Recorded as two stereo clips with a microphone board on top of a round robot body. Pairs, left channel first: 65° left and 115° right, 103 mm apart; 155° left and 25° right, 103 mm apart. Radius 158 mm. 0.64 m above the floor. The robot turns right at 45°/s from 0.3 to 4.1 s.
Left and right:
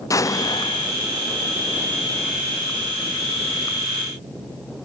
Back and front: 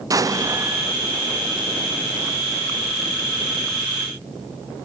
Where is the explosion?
20° left, 1.1 m; by 0.9 s 45° left, 1.1 m.